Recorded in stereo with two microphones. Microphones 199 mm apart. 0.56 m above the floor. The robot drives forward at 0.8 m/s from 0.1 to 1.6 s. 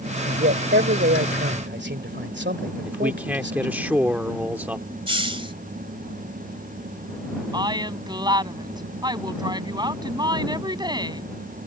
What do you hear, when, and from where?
0.2 s a man speaking: 65° right (ahead or behind)
2.9 s a man speaking: 10° right (ahead or behind)
5.1 s a hiss: 25° right (ahead or behind)
7.5 s a woman speaking: 20° right (ahead or behind)